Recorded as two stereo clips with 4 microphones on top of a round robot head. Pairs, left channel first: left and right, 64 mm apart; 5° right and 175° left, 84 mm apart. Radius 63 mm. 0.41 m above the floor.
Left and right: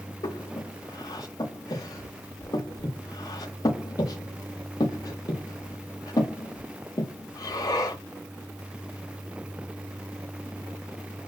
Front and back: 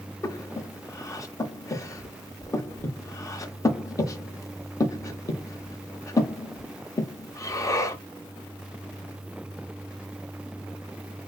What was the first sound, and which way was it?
Breathing, 50° left.